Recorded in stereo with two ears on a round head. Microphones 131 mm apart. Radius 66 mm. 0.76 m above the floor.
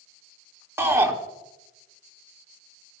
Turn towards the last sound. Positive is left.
turn(degrees=-20)  # may be behind; listen again after turning